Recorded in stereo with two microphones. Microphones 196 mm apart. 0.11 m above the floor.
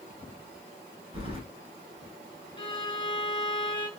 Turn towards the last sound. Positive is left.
turn(degrees=30)  # may be behind; listen again after turning